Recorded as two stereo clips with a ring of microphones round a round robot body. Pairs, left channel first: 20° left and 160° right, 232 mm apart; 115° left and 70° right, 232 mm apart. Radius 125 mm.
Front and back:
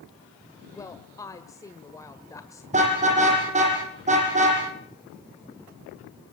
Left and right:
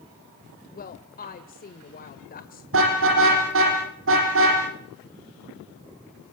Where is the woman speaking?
90° left, 1.7 m.